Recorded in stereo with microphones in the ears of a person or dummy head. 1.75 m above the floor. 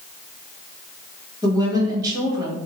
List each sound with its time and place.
1.4 s a woman speaking: 20° right (ahead or behind), 0.9 m